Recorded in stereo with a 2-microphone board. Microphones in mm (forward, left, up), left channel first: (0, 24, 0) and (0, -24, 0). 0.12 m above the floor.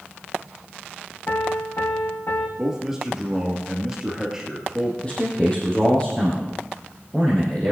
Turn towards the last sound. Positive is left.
turn(degrees=25)  # may be behind; listen again after turning